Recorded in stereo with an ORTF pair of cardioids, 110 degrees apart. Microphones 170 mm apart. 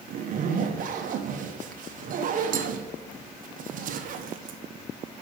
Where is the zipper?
55° right, 0.9 m.